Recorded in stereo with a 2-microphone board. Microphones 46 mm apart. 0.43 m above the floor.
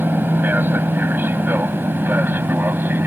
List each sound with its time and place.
0.0 s an aircraft: 45° right (ahead or behind); by 3.1 s 50° right (ahead or behind)